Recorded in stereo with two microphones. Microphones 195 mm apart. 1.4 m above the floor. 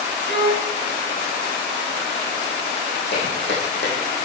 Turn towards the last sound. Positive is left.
turn(degrees=70)  # may be behind; listen again after turning